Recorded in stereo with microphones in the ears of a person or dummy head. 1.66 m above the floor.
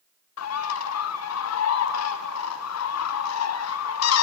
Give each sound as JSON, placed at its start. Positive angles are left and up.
{"t": 0.4, "sound": "a bird", "side_deg": 80, "distance_m": 0.6}